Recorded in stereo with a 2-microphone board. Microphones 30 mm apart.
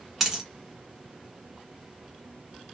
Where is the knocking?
No knocking in this recording.